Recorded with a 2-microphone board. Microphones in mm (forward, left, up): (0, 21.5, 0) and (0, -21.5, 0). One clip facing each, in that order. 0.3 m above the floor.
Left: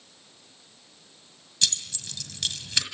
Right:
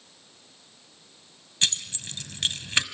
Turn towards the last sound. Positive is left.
turn(degrees=-35)  # may be behind; listen again after turning